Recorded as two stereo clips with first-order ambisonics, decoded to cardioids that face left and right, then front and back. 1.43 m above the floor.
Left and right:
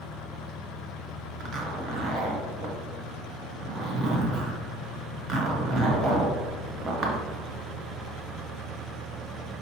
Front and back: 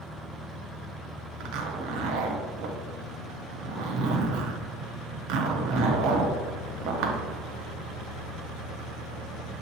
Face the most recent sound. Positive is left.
turn(degrees=-150)